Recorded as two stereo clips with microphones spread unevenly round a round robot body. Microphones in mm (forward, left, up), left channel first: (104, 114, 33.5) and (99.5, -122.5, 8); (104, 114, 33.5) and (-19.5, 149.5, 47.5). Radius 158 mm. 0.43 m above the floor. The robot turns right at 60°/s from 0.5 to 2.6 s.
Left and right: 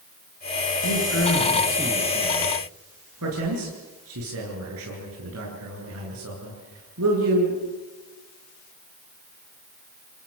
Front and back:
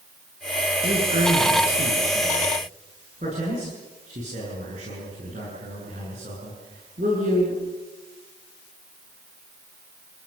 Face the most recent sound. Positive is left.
turn(degrees=-135)